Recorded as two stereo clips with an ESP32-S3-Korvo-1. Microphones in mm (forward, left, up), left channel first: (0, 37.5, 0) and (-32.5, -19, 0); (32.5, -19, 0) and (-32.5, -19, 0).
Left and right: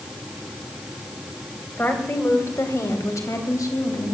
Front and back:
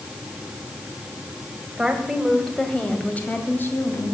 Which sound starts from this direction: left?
A woman speaking, at 1.8 s.